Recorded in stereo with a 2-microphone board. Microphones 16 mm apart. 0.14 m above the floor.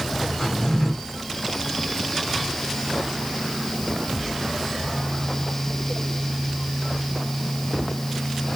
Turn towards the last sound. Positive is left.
turn(degrees=55)  # may be behind; listen again after turning